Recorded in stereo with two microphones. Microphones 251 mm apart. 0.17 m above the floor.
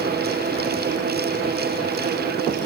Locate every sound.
Only background noise.